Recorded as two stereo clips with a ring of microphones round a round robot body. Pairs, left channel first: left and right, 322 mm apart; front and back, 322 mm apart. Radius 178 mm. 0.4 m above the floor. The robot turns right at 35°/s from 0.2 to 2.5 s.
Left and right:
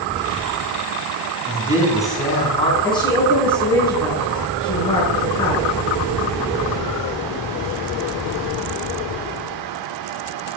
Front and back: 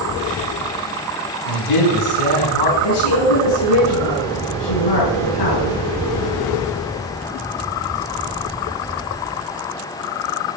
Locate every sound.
1.4 s a man speaking: 20° right, 5 m; by 2.7 s 15° left, 5 m
2.8 s a woman speaking: 10° left, 5 m